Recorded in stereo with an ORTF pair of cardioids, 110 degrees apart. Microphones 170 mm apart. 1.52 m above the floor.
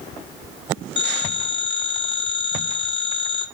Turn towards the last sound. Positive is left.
turn(degrees=30)